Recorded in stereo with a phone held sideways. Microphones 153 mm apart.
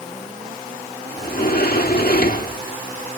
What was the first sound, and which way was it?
A sliding door, 75° left (ahead or behind).